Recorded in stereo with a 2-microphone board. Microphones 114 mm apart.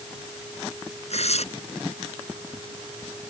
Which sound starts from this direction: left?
Tearing paper, at 1.1 s.